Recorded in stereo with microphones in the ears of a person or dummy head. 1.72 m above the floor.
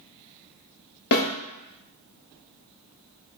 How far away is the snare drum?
About 1.1 m.